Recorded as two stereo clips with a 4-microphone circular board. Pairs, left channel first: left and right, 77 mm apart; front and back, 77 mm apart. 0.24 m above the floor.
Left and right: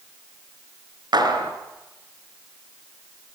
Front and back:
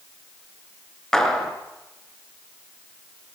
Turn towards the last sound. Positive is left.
turn(degrees=-80)